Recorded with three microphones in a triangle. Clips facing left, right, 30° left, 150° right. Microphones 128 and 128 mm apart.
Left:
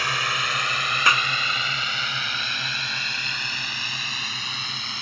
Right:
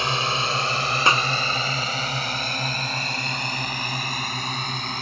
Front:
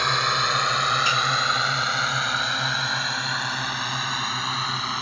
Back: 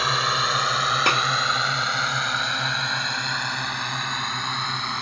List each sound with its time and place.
0.0 s a drone: 65° right; by 5.0 s 55° right
1.1 s a clap: 150° right